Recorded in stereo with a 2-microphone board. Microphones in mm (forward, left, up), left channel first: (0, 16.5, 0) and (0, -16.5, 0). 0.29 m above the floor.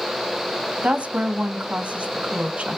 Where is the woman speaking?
45° right (ahead or behind), 1.7 m.